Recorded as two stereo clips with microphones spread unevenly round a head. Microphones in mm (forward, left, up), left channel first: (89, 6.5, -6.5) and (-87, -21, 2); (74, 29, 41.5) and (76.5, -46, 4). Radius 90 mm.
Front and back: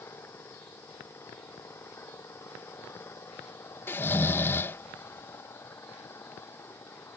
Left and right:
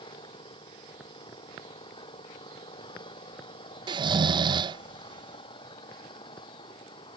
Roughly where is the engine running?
Left.